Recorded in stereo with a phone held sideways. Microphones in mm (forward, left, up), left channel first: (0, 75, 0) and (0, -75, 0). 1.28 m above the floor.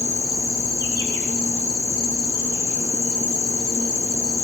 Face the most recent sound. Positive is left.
turn(degrees=25)  # may be behind; listen again after turning